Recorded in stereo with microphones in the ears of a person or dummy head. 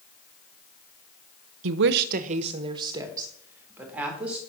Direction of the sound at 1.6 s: 75° right (ahead or behind).